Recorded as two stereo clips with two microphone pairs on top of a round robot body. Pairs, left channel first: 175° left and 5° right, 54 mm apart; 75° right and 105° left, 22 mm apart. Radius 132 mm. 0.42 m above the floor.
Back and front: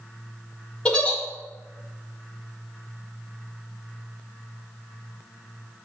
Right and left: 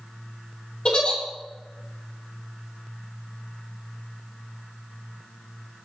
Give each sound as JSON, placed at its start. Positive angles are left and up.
{"t": 0.8, "sound": "a giggle", "azimuth_deg": -130, "distance_m": 1.4}